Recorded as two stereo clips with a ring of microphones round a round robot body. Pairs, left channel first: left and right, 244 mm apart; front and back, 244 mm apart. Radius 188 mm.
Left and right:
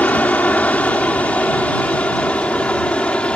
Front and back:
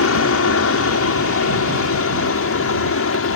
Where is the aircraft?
5° left.